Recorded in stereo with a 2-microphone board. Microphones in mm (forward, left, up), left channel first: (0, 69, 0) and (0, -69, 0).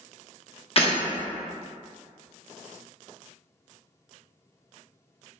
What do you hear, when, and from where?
0.8 s breaking glass: 45° left (ahead or behind), 0.7 m